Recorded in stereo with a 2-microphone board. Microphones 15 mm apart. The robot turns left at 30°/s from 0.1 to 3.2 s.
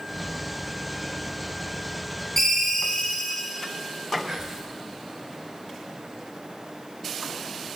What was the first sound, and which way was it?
A ringtone, 20° left (ahead or behind).